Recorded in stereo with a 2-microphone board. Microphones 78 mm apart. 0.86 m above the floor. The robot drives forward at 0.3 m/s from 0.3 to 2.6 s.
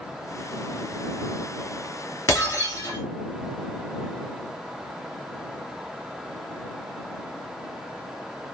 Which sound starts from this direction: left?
Breaking glass, at 2.3 s.